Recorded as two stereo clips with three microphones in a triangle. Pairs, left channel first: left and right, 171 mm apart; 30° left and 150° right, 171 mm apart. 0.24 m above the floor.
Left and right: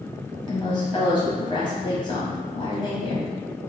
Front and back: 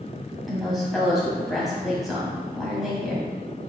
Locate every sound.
0.5 s a woman speaking: 120° left, 1.3 m